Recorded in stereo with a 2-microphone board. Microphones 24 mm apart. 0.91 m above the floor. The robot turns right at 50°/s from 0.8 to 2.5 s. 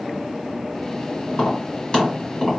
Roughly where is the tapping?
Left.